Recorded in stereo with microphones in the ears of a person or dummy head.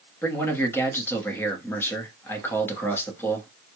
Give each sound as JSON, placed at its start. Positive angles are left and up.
{"t": 0.2, "sound": "a man speaking", "side_deg": 15, "distance_m": 0.8}